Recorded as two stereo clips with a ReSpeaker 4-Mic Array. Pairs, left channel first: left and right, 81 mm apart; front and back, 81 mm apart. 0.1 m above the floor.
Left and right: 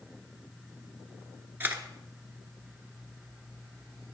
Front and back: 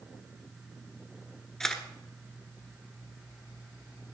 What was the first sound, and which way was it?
A camera shutter, 75° right.